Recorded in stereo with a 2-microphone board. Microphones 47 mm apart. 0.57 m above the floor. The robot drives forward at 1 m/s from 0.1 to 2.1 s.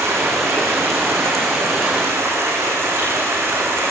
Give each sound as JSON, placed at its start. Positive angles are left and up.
{"t": 0.0, "sound": "running water", "side_deg": -85, "distance_m": 6.5}